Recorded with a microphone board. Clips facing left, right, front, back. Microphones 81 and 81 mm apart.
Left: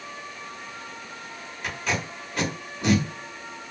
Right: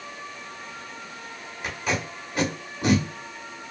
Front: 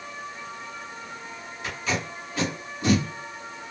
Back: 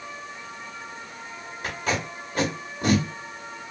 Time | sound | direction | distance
1.6 | tape being pulled | 170° right | 1.7 m